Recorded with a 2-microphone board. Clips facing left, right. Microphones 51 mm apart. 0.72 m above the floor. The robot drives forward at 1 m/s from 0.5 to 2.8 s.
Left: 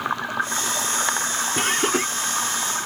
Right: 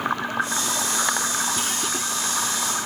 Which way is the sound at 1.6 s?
50° left (ahead or behind).